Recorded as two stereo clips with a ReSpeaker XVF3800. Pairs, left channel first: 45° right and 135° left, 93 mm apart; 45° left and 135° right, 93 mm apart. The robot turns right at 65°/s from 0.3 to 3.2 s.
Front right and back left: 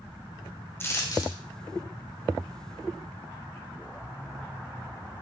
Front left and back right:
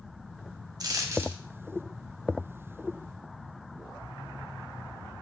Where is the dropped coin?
105° right, 1.5 m; by 1.4 s 65° right, 1.5 m.